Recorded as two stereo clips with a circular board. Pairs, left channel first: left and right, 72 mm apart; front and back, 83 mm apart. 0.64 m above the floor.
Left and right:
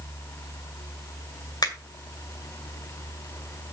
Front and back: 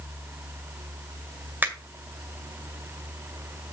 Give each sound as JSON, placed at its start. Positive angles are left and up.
{"t": 1.6, "sound": "a finger snap", "azimuth_deg": 110, "distance_m": 2.0}